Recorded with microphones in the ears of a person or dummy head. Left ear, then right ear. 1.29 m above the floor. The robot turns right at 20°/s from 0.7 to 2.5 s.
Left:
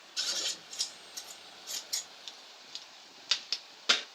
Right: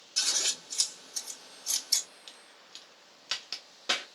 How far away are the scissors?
About 2.5 m.